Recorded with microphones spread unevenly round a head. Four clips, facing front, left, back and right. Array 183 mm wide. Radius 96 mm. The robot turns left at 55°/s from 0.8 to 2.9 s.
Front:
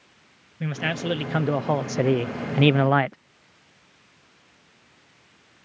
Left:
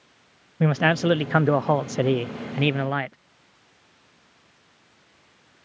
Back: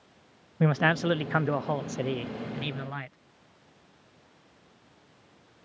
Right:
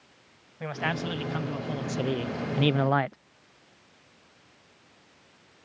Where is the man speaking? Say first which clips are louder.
Left 10 dB, back 4 dB; 110° left; by 3.2 s 5° right.